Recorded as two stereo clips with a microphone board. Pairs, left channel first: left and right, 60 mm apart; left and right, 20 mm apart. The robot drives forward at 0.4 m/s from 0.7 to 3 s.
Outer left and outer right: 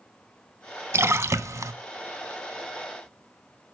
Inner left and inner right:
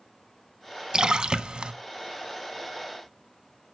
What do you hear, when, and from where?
0.9 s a splash: 45° right (ahead or behind), 0.6 m; by 1.7 s 60° right (ahead or behind), 0.5 m